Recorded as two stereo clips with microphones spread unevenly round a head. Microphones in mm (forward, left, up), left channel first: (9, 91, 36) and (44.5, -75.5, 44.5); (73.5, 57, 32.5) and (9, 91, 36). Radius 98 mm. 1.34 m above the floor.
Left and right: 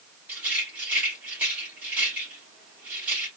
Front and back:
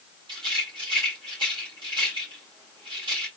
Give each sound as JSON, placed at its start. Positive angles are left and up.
{"t": 0.3, "sound": "a rattle", "azimuth_deg": -160, "distance_m": 1.8}